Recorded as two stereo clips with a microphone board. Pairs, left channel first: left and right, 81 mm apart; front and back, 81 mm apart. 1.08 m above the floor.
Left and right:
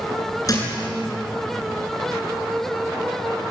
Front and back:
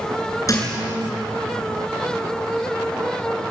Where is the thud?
45° left, 7.5 m.